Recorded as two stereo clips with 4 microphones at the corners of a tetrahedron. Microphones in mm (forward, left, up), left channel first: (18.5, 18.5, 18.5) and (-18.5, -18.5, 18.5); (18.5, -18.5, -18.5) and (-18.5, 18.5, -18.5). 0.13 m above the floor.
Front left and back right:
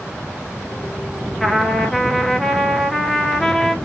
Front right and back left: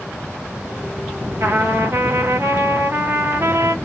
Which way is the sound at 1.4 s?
130° left.